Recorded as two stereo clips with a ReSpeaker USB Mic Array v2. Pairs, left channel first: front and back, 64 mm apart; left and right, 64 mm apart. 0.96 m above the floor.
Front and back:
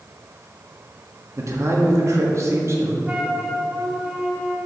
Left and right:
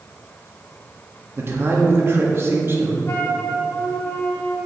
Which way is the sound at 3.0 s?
125° left.